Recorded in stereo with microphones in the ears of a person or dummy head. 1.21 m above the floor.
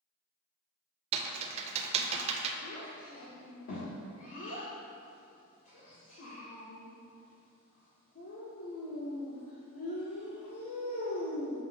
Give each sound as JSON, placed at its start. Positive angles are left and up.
{"t": 1.1, "sound": "typing on a keyboard", "side_deg": -35, "distance_m": 0.6}
{"t": 2.6, "sound": "a child speaking", "side_deg": 60, "distance_m": 1.6}